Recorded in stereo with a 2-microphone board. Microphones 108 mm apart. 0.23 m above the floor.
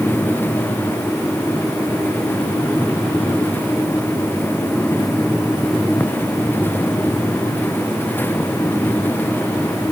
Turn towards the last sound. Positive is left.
No sound to turn to.